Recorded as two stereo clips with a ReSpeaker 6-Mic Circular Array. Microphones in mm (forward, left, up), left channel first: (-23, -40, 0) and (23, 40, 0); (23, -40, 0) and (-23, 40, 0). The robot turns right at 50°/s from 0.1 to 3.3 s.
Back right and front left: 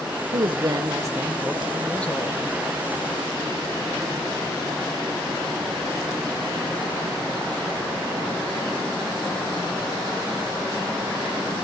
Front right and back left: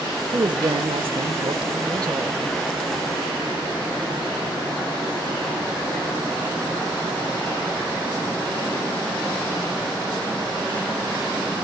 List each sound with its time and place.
0.3 s a woman speaking: 80° left, 1.1 m; by 2.4 s straight behind, 1.1 m